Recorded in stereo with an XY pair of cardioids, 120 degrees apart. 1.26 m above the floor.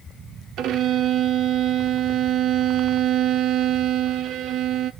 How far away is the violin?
About 0.6 m.